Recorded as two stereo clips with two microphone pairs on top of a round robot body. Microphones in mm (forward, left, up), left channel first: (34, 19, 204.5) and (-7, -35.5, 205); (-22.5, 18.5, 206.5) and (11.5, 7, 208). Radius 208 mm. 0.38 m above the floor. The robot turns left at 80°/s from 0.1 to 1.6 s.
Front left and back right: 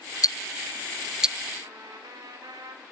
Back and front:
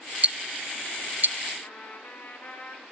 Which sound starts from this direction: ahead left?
Ticking, at 0.2 s.